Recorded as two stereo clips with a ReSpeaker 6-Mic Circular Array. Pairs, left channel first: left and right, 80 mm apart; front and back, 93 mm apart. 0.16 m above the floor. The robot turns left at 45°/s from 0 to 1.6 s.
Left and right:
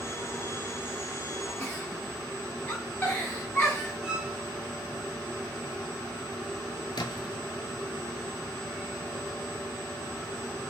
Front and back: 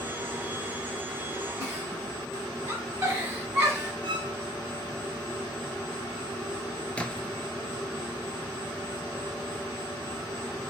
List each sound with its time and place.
1.6 s a giggle: 140° left, 1.8 m
4.0 s a violin: 170° right, 0.6 m
7.0 s a splash: 75° left, 0.6 m